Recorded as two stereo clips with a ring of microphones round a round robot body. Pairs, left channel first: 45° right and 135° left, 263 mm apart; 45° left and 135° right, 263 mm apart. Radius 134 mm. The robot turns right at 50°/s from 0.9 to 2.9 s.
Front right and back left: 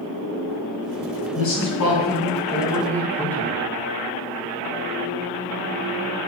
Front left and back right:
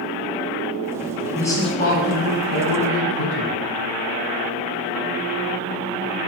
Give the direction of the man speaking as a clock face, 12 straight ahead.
1 o'clock.